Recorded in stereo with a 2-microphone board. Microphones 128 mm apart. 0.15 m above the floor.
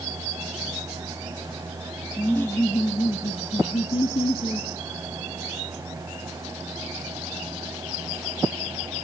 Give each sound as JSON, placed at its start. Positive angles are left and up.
{"t": 2.2, "sound": "laughter", "side_deg": 15, "distance_m": 1.5}